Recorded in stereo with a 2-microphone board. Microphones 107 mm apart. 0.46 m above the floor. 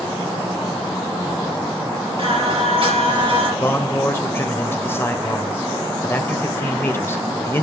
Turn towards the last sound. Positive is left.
turn(degrees=20)  # may be behind; listen again after turning